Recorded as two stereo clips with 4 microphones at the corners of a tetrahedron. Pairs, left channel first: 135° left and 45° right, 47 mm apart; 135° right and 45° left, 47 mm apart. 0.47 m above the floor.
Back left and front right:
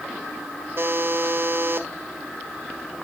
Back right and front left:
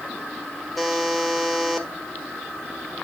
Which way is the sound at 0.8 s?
50° right.